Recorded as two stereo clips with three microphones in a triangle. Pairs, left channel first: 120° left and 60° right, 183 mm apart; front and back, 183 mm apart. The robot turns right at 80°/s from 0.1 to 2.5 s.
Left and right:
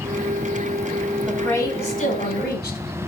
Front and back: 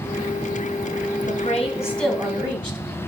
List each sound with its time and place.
1.3 s a woman speaking: 25° left, 2 m; by 2.8 s 125° left, 2 m